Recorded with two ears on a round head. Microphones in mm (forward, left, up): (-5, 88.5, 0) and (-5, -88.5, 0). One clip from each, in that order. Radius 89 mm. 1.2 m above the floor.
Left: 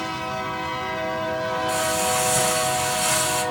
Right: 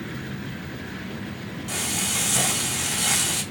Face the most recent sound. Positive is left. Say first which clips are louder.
# left 2 dB
turn(degrees=-50)  # may be behind; listen again after turning